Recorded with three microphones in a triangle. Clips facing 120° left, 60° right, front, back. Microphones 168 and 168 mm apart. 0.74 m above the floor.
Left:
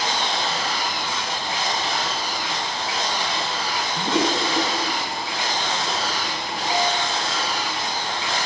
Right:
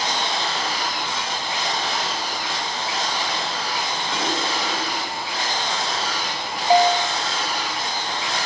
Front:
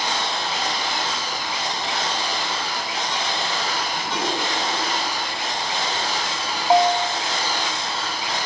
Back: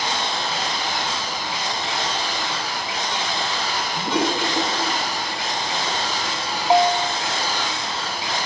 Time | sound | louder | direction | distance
4.0 | a toilet flushing | left 7 dB, back 7 dB | 130° left | 5.5 m
6.7 | a bell | right 8 dB, even | 90° right | 2 m